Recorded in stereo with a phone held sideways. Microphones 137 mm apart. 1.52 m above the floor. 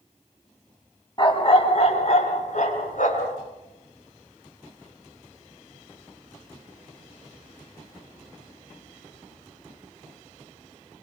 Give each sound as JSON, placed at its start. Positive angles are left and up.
{"t": 1.2, "sound": "a dog barking", "side_deg": 35, "distance_m": 3.0}